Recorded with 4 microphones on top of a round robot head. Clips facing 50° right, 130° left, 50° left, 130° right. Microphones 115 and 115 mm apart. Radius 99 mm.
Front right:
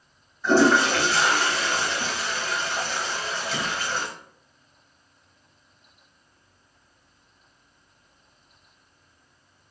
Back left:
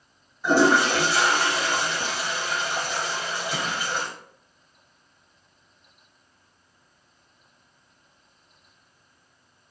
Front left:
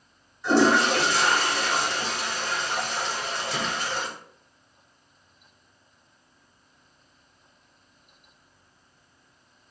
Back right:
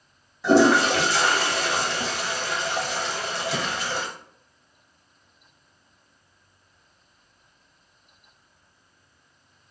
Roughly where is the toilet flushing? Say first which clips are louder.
Front right 1 dB, back right 3 dB; behind right.